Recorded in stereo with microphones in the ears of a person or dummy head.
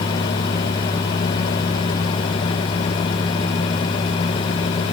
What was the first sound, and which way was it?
Only background noise.